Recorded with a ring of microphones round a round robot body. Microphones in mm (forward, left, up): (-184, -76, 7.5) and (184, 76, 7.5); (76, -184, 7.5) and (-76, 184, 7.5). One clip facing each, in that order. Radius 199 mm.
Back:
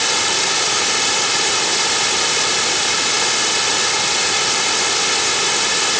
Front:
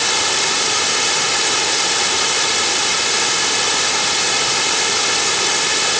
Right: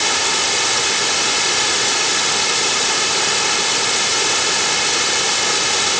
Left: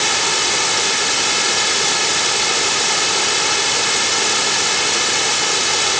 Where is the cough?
No cough in this recording.